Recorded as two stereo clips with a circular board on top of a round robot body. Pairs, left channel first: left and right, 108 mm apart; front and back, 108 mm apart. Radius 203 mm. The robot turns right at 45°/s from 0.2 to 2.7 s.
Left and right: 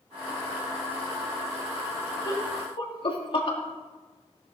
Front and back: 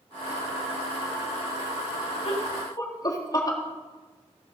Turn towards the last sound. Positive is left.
turn(degrees=50)